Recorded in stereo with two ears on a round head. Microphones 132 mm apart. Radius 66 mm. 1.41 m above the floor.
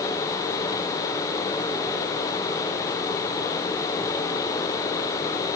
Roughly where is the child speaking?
I don't hear a child speaking.